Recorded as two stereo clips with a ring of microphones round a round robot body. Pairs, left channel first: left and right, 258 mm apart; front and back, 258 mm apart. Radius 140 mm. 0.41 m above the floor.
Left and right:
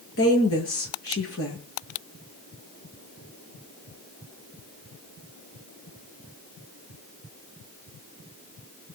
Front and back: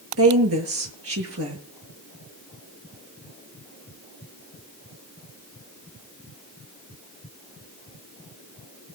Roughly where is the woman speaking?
Behind left.